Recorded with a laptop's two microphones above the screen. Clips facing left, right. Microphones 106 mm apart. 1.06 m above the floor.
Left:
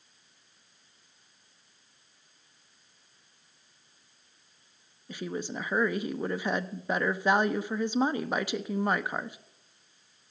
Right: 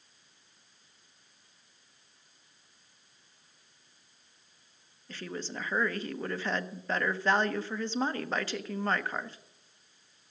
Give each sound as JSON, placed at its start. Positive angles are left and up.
{"t": 5.1, "sound": "a woman speaking", "side_deg": 15, "distance_m": 0.6}